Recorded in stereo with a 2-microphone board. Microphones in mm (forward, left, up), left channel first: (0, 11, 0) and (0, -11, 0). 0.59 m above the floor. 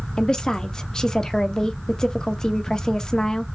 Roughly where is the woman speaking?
Left.